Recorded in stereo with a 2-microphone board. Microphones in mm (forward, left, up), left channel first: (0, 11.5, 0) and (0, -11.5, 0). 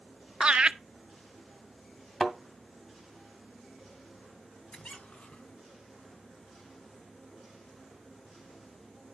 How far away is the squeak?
About 2.0 m.